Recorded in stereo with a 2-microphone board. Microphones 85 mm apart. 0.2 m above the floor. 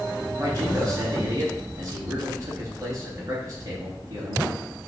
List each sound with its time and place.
0.4 s a man speaking: 40° right (ahead or behind), 2.5 m